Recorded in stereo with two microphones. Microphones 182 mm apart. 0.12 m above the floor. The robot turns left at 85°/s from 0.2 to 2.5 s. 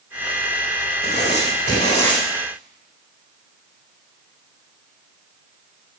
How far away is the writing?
About 6 m.